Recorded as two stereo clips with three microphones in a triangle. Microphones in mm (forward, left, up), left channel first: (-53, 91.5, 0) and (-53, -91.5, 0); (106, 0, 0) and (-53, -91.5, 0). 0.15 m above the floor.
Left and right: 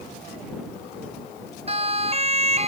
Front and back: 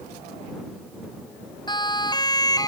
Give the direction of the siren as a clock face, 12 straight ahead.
1 o'clock.